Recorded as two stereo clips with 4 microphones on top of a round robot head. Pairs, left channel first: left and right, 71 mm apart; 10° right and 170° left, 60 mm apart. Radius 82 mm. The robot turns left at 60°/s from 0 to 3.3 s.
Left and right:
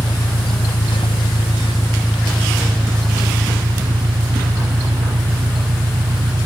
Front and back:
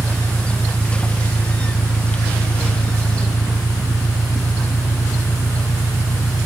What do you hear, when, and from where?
0.0 s an engine running: 135° left; by 6.5 s 65° right